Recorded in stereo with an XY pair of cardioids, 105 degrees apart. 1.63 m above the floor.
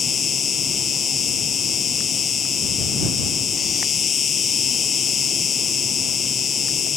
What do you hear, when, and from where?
0.0 s an insect: 50° left